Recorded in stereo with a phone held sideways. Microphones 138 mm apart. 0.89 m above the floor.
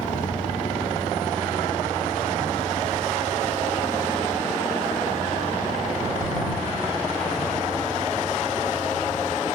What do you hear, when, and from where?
0.0 s a vehicle: 70° left (ahead or behind); by 9.6 s 85° left